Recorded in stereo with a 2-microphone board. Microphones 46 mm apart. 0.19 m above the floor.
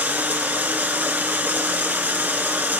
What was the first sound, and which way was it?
Running water, 45° right (ahead or behind).